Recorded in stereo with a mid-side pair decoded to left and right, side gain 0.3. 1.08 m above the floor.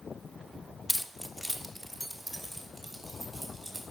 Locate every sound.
0.9 s keys jangling: 10° left, 1.0 m; by 3.8 s 15° right, 5.5 m